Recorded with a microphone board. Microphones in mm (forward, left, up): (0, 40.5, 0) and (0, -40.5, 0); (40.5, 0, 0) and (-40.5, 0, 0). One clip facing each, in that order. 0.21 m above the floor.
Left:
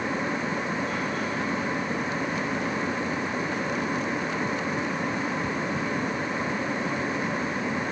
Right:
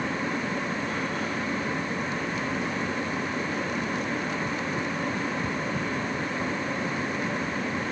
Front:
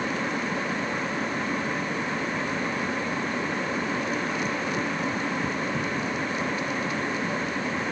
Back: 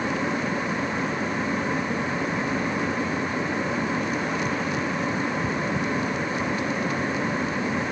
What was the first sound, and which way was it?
Only background noise.